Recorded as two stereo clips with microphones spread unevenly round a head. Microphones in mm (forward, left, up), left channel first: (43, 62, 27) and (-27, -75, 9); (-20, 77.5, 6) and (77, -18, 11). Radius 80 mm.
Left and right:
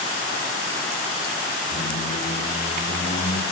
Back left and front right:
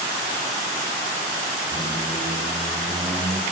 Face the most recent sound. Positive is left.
turn(degrees=25)